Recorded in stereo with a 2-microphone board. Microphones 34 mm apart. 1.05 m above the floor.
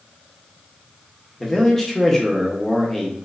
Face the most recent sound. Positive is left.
turn(degrees=15)  # may be behind; listen again after turning